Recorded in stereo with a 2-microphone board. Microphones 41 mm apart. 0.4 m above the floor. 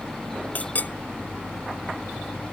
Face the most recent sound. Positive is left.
turn(degrees=40)  # may be behind; listen again after turning